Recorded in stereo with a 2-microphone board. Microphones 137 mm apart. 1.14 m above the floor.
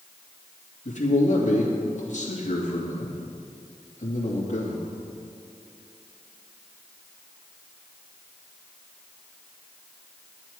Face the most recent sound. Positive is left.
turn(degrees=60)  # may be behind; listen again after turning